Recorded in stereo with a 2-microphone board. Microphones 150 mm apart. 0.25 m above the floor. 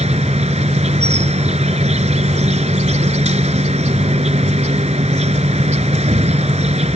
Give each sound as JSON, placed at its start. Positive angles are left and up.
{"t": 0.0, "sound": "an insect", "side_deg": -50}